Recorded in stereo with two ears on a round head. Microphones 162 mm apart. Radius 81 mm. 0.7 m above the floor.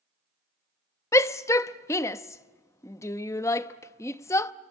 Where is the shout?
15° left (ahead or behind), 0.6 m.